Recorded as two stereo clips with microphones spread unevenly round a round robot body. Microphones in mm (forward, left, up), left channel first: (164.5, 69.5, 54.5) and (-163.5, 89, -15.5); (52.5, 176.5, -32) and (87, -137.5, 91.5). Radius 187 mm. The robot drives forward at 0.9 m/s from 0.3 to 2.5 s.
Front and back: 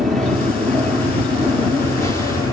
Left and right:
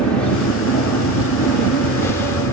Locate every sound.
0.0 s an aircraft: 115° left; by 2.5 s 90° left